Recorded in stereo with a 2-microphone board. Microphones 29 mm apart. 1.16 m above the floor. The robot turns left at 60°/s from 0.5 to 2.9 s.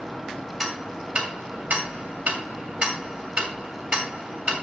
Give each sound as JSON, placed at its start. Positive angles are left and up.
{"t": 0.6, "sound": "ticking", "side_deg": 5, "distance_m": 2.0}